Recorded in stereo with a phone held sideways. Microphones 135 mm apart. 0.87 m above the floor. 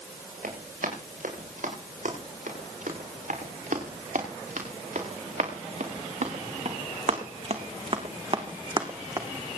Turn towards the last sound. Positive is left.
turn(degrees=-25)  # may be behind; listen again after turning